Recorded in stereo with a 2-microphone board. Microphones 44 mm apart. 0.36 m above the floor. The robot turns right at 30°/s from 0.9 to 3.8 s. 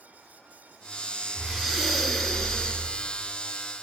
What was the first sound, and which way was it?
Breathing, 25° right.